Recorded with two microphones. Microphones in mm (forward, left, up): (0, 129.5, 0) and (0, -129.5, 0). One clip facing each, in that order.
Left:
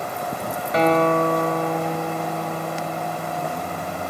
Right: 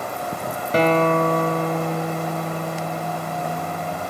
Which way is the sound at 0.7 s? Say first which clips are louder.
Even; 35° right (ahead or behind).